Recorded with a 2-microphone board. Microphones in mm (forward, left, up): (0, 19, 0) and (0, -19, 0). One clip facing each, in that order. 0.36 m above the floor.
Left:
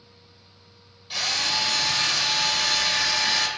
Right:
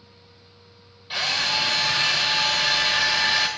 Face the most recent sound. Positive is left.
turn(degrees=-20)  # may be behind; listen again after turning